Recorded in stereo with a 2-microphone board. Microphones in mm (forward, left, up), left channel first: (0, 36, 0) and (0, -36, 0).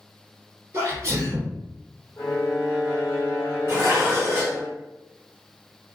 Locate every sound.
0.7 s a sneeze: 35° right (ahead or behind), 1.7 m
2.2 s a violin: 40° left (ahead or behind), 1.3 m
3.7 s dishes clattering: 30° right (ahead or behind), 1.3 m